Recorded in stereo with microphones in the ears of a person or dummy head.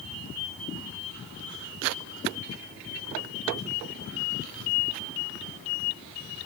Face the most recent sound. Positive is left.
No sound to turn to.